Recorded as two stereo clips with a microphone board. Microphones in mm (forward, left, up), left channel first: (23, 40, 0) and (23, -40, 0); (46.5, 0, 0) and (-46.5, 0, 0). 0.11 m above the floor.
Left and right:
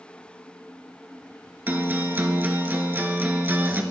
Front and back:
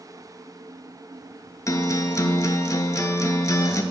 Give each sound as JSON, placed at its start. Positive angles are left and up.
{"t": 1.7, "sound": "a guitar", "azimuth_deg": -35, "distance_m": 0.5}